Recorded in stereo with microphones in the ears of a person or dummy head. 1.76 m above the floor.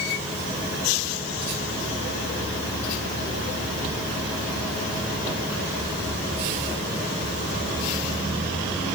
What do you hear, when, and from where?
Only background noise.